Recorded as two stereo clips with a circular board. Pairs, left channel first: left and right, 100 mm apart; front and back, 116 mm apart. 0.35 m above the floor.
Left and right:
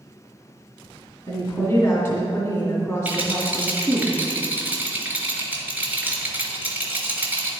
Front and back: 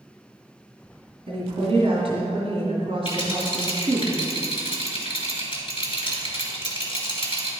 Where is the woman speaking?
150° left, 2 m.